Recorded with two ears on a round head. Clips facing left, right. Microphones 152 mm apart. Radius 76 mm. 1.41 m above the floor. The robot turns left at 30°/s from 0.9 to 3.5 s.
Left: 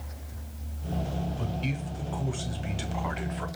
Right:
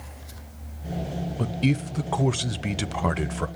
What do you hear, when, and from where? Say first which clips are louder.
1.4 s a man speaking: right 8 dB; 60° right, 0.7 m; by 3.5 s 125° right, 0.7 m